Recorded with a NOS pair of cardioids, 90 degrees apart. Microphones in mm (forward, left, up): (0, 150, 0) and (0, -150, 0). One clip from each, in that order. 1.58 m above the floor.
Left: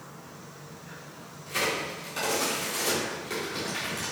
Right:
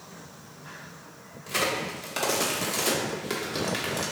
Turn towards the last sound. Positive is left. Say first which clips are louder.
# right 1 dB
turn(degrees=-50)